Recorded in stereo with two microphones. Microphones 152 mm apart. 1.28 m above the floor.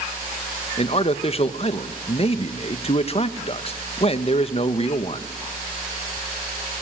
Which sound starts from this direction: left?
A man speaking, at 0.8 s.